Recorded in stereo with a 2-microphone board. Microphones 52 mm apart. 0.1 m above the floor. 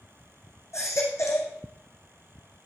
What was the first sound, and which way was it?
A baby crying, 70° left (ahead or behind).